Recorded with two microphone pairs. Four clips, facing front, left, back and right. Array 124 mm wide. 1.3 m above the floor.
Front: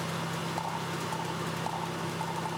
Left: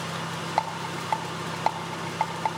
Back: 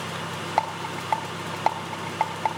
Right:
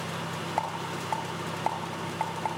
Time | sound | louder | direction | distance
0.6 | a rattle | left 4 dB, back 7 dB | 150° left | 3 m